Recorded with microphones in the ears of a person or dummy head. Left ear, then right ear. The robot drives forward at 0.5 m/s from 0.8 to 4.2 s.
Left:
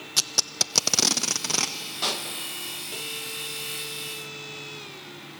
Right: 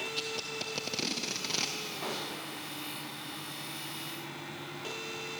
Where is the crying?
No crying in this recording.